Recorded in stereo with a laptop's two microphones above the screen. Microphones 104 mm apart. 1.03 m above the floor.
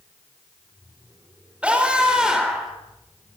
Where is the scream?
10° right (ahead or behind), 4.5 m; by 2.7 s 5° right (ahead or behind), 4.5 m.